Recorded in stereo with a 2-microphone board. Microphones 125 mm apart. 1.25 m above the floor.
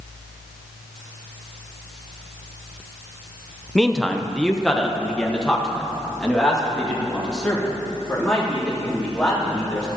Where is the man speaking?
5° left (ahead or behind), 0.6 m.